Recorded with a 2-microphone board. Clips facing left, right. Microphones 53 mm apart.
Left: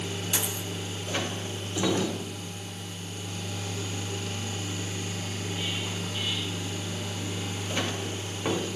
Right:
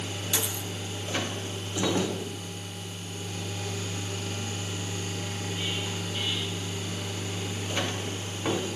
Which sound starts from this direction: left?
A dropped coin, at 0.3 s.